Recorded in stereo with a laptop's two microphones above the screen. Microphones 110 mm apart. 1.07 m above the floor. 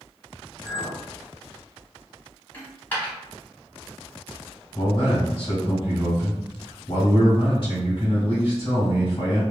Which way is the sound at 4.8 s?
45° left (ahead or behind).